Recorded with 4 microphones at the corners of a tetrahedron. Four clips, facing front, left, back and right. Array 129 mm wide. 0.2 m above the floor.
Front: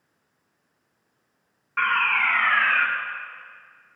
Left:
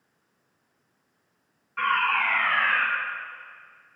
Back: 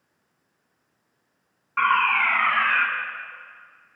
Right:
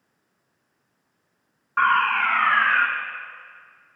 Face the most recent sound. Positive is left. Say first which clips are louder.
# right 5 dB, back 3 dB
turn(degrees=-90)